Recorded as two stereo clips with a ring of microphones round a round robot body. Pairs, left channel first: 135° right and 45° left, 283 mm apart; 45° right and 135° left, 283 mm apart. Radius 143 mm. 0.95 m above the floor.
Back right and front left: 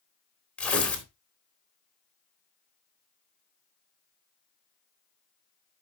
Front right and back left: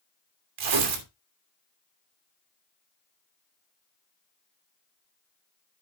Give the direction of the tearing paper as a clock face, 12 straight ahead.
7 o'clock.